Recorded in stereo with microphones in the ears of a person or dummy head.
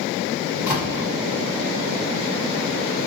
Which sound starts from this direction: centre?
A door slam, at 0.7 s.